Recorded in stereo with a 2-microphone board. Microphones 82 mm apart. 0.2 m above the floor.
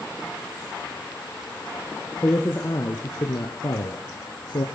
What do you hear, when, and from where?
2.2 s a man speaking: 25° left (ahead or behind), 2.5 m; by 4.7 s 60° left (ahead or behind), 2.5 m